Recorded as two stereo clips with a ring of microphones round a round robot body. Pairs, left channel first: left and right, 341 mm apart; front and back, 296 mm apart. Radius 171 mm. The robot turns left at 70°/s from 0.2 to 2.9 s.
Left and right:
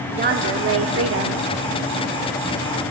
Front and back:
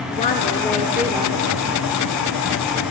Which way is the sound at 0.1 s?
45° right.